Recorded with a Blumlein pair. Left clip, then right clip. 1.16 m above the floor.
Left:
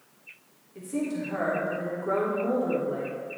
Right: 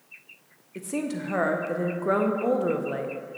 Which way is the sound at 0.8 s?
30° right.